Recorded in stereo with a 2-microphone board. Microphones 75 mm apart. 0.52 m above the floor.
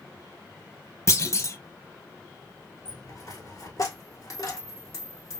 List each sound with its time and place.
1.1 s a clunk: 40° left (ahead or behind), 0.5 m
2.9 s a dropped coin: 50° left (ahead or behind), 1.3 m